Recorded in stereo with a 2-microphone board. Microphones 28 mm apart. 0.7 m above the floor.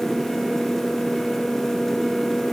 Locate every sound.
Only background noise.